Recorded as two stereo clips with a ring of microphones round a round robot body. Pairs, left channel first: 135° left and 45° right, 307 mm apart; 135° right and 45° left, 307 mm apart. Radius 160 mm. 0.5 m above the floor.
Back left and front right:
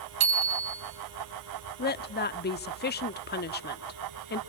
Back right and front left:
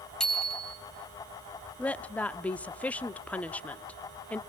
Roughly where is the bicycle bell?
Ahead right.